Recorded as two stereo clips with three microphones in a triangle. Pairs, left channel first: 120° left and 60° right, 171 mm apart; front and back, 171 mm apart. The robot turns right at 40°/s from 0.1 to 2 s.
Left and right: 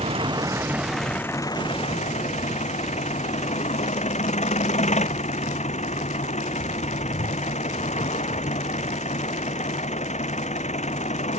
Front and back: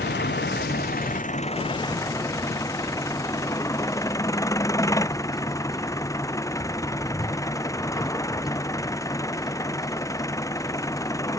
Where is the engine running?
5° right; by 11.4 s 70° left.